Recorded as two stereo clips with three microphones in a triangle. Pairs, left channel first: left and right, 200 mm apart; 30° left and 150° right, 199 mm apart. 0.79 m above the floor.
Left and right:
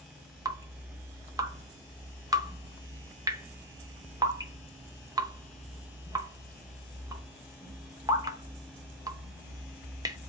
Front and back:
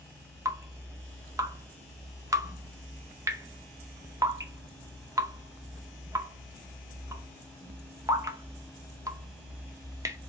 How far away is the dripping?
About 0.7 m.